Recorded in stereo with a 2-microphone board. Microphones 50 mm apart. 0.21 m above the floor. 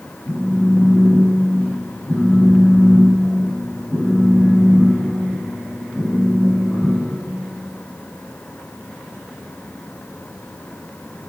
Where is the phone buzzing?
20° left (ahead or behind), 5 m.